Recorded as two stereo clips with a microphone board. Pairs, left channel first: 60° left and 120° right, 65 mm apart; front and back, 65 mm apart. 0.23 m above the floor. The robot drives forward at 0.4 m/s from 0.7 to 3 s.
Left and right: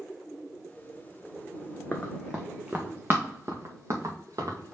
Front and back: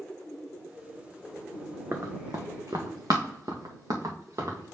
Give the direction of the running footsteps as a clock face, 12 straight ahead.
8 o'clock.